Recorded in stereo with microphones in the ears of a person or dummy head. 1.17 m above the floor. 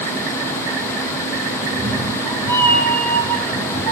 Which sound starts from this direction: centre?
A cat meowing, at 1.6 s.